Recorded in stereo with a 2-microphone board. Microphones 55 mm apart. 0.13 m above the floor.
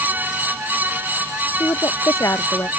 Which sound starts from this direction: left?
A woman speaking, at 1.6 s.